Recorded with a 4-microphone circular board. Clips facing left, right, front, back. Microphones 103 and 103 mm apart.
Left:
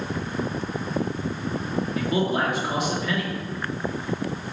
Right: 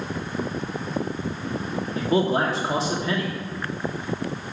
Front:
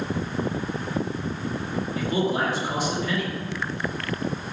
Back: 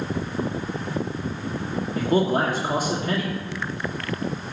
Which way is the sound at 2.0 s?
145° right.